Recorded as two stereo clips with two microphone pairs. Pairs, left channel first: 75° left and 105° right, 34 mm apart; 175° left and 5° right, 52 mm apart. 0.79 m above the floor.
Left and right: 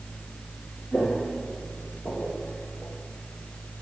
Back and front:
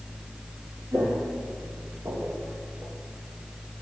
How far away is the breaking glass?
I don't hear breaking glass.